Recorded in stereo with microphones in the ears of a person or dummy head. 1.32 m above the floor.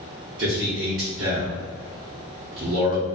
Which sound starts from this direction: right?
A man speaking, at 0.4 s.